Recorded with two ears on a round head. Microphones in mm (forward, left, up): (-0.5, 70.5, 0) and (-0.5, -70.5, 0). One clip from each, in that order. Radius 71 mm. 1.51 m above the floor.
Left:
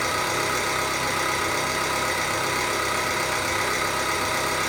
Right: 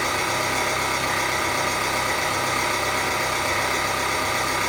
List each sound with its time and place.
0.0 s an engine running: 10° left (ahead or behind), 0.9 m